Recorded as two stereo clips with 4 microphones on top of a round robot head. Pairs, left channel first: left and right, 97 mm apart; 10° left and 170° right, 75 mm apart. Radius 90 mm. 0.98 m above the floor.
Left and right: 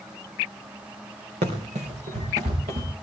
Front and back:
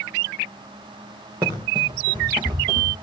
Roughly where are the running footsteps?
Right.